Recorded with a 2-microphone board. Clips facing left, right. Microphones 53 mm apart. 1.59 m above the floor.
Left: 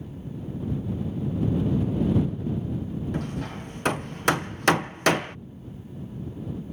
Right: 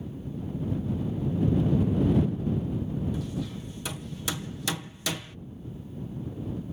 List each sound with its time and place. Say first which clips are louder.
3.1 s hammering: left 2 dB; 60° left (ahead or behind)